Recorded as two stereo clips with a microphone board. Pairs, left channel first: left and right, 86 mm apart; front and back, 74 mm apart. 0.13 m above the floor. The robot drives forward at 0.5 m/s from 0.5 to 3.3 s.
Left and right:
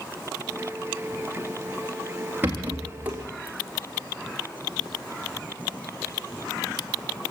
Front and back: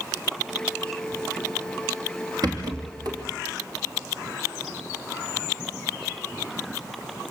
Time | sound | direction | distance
2.4 | a rattle | 155° right | 4 m